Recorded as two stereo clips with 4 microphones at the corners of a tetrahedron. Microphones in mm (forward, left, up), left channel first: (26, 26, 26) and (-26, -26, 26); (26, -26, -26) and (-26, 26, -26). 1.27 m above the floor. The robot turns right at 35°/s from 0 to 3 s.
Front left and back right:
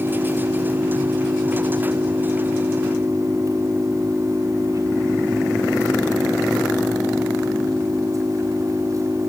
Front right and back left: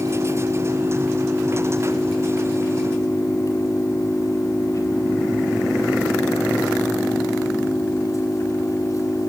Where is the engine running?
165° left, 8.5 m; by 9.3 s 90° right, 8.5 m.